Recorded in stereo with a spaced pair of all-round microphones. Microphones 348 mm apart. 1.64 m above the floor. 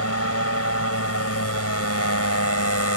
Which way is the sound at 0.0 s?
45° left (ahead or behind).